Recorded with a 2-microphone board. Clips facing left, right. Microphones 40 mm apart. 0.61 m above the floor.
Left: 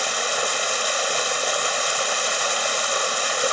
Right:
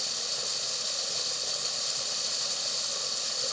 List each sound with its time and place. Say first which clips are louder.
0.0 s running water: left 14 dB; 65° left (ahead or behind)